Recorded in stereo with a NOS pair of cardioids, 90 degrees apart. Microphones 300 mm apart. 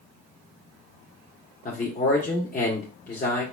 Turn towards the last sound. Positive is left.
turn(degrees=30)